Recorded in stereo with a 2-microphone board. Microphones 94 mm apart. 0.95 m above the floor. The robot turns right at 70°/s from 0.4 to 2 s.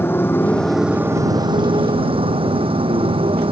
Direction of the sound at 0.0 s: 25° left (ahead or behind).